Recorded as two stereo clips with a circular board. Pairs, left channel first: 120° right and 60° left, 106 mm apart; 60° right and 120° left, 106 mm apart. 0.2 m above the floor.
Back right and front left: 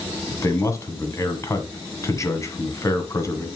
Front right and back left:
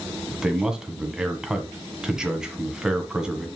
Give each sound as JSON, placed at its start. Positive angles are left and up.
{"t": 0.3, "sound": "a man speaking", "azimuth_deg": -160, "distance_m": 1.7}